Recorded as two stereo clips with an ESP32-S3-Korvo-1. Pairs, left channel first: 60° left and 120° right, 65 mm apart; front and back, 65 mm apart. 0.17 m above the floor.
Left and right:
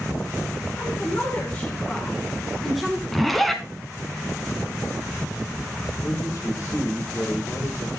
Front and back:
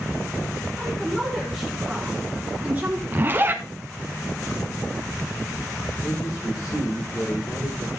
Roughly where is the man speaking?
Ahead left.